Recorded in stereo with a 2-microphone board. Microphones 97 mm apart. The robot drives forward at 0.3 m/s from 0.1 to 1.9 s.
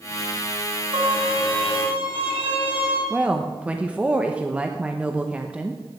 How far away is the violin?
About 3 m.